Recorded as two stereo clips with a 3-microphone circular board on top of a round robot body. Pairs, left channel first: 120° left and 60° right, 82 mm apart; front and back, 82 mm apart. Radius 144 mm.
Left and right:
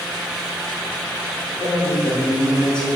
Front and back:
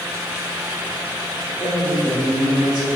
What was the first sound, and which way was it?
A woman speaking, 135° left.